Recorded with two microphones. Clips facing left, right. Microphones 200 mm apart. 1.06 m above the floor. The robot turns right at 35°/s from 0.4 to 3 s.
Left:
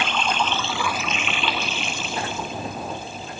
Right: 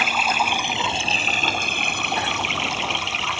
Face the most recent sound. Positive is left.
turn(degrees=-80)